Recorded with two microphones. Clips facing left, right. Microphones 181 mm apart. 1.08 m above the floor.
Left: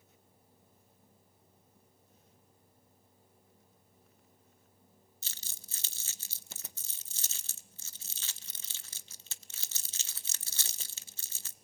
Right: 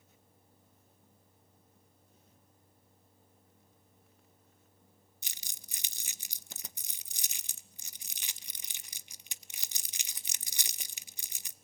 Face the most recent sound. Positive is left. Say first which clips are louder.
# right 1 dB
turn(degrees=-15)  # may be behind; listen again after turning